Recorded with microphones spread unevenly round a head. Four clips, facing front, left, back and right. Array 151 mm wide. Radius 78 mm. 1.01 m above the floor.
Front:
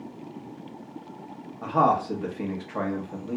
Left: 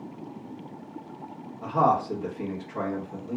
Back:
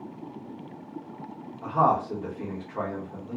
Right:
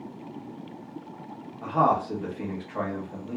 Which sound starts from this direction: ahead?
A man speaking, at 1.6 s.